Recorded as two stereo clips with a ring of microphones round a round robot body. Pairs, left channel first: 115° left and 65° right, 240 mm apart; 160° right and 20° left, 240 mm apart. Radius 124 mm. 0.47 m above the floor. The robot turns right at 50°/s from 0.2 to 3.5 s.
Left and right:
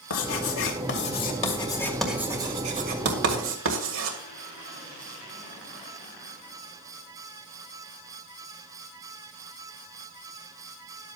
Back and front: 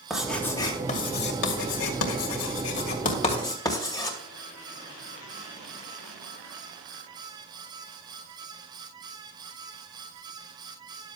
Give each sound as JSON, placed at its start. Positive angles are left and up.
{"t": 0.1, "sound": "writing", "azimuth_deg": 110, "distance_m": 2.5}